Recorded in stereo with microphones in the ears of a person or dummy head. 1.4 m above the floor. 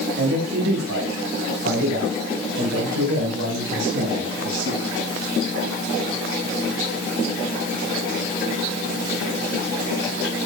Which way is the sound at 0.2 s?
65° right (ahead or behind).